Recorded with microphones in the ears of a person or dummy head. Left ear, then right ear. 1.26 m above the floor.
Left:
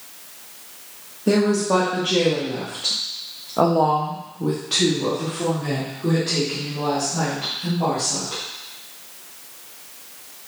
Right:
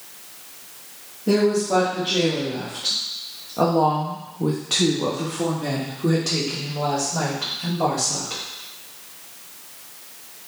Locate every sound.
1.3 s a woman speaking: 80° left, 1.5 m; by 8.4 s 70° right (ahead or behind), 2.5 m